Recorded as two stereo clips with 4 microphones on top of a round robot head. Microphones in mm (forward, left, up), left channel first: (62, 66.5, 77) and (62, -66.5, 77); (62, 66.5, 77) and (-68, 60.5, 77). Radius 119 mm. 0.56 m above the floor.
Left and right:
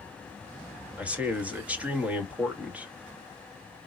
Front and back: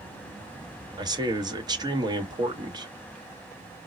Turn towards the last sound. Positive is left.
turn(degrees=-160)